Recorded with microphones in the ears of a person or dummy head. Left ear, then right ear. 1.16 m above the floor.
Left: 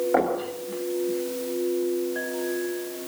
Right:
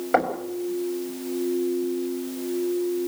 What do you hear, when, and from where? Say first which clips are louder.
0.1 s knocking: right 3 dB; 65° right (ahead or behind), 6 m